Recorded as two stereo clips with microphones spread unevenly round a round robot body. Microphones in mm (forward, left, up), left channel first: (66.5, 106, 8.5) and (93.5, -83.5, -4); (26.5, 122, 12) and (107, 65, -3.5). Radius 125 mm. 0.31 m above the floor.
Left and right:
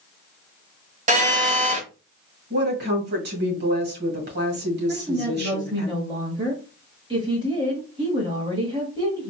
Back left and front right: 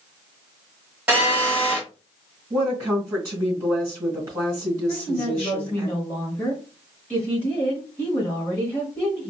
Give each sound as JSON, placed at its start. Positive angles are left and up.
{"t": 1.1, "sound": "a phone buzzing", "azimuth_deg": -100, "distance_m": 0.9}
{"t": 2.5, "sound": "a woman speaking", "azimuth_deg": -90, "distance_m": 1.9}
{"t": 4.9, "sound": "a woman speaking", "azimuth_deg": -130, "distance_m": 1.1}